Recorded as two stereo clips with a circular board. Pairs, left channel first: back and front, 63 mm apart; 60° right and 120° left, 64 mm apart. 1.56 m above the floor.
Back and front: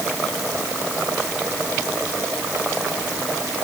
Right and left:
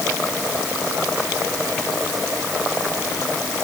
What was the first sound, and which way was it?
Only background noise.